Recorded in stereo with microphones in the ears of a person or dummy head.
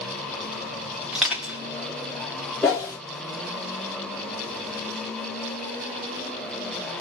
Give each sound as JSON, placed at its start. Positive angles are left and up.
{"t": 1.1, "sound": "crushing", "side_deg": -5, "distance_m": 0.9}
{"t": 2.6, "sound": "a whoosh", "side_deg": 5, "distance_m": 0.7}